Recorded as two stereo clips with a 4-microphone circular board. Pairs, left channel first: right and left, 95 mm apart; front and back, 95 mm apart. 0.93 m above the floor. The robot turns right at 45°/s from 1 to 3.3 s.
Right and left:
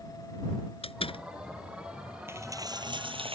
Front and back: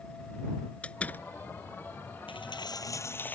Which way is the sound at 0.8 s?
75° right.